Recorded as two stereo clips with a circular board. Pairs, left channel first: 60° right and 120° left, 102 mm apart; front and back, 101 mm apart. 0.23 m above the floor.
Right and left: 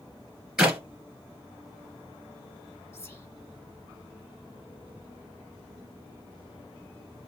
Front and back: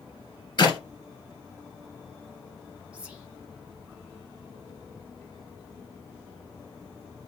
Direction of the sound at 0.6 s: 35° left.